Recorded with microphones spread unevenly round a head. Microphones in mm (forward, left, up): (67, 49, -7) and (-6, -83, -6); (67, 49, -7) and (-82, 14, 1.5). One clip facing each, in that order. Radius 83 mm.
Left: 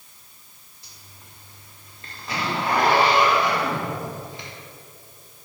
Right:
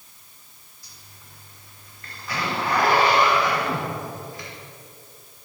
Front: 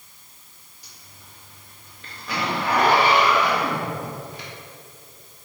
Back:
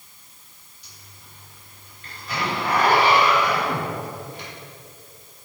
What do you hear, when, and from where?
0.8 s a zipper: 5° right, 2.5 m